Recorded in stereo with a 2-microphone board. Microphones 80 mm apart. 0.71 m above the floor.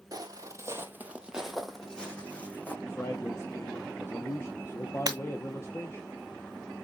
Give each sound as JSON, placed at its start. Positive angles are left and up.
{"t": 0.1, "sound": "footsteps", "side_deg": -50, "distance_m": 1.0}
{"t": 2.8, "sound": "a man speaking", "side_deg": 35, "distance_m": 0.7}
{"t": 5.1, "sound": "breaking glass", "side_deg": -50, "distance_m": 1.6}